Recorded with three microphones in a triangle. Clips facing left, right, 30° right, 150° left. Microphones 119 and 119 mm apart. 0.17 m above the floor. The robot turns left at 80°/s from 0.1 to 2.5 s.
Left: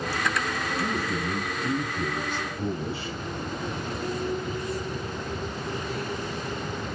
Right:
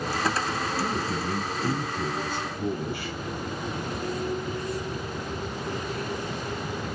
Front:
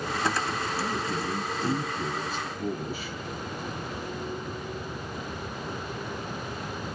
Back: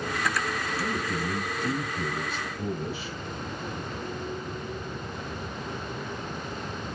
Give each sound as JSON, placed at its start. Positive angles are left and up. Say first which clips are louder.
{"t": 0.8, "sound": "a man speaking", "louder": "even, even", "azimuth_deg": -105, "distance_m": 1.5}